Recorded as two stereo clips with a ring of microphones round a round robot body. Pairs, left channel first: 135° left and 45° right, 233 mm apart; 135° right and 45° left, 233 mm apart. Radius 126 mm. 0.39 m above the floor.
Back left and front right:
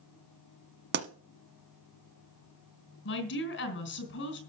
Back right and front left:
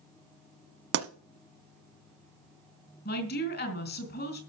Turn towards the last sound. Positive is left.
turn(degrees=175)